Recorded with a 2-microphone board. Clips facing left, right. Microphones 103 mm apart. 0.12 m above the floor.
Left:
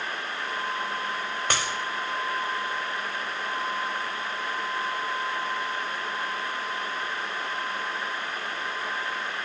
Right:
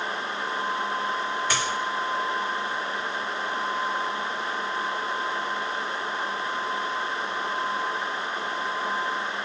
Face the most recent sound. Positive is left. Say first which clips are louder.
# left 2 dB
turn(degrees=55)  # may be behind; listen again after turning